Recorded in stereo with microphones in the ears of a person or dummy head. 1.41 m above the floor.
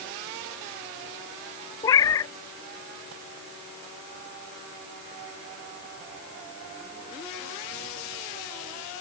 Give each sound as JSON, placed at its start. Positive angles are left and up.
{"t": 1.8, "sound": "a cat meowing", "side_deg": 15}